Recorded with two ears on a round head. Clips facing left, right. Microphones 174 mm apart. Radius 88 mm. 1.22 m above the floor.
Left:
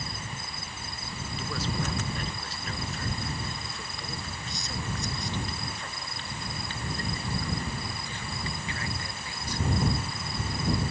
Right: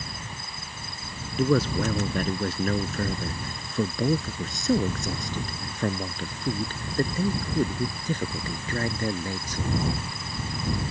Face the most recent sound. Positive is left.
turn(degrees=-35)  # may be behind; listen again after turning